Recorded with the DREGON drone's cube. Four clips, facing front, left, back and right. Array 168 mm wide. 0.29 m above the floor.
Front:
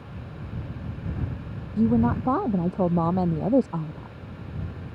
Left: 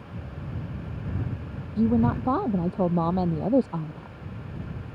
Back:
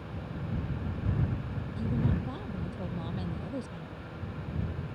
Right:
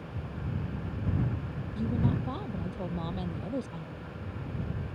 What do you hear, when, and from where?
1.8 s a woman speaking: 40° left